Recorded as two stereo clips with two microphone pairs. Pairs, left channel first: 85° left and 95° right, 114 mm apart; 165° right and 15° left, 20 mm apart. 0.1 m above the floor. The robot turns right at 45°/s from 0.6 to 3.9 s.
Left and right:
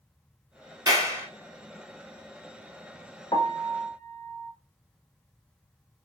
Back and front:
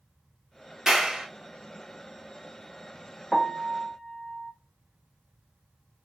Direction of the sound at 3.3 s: 115° left.